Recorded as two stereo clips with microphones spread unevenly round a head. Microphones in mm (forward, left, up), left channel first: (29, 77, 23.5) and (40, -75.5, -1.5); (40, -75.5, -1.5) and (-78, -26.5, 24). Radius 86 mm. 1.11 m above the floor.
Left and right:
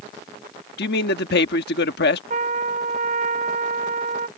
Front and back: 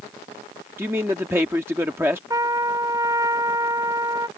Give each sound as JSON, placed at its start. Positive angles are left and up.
{"t": 0.8, "sound": "a man speaking", "azimuth_deg": 80}
{"t": 2.3, "sound": "a trumpet", "azimuth_deg": -140}